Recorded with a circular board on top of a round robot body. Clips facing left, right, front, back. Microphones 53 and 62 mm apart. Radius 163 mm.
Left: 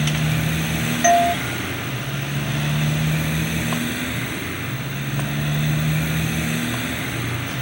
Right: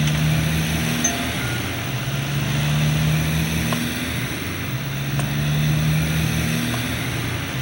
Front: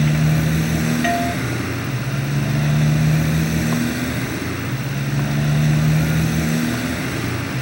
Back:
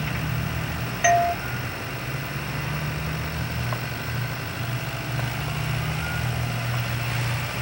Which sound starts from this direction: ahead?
A motorcycle, at 0.0 s.